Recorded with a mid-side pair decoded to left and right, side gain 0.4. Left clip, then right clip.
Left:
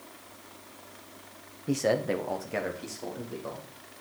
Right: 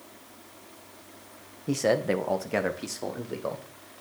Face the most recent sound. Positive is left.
turn(degrees=-65)